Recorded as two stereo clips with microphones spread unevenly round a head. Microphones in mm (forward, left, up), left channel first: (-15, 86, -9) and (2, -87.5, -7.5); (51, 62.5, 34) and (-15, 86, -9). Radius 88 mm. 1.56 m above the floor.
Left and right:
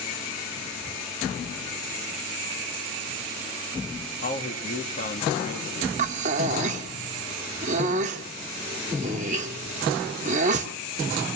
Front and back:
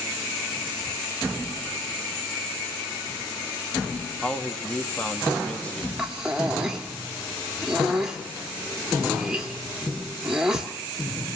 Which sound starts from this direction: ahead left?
A man speaking, at 4.2 s.